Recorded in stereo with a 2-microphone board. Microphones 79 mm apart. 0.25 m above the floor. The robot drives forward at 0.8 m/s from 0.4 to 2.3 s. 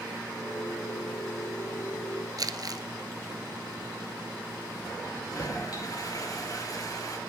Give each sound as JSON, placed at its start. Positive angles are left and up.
{"t": 2.4, "sound": "crumpling", "side_deg": -55, "distance_m": 1.3}
{"t": 5.0, "sound": "a toilet flushing", "side_deg": 50, "distance_m": 4.5}